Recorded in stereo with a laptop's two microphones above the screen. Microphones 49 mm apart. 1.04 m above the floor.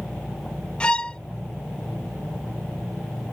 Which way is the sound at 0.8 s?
20° left (ahead or behind).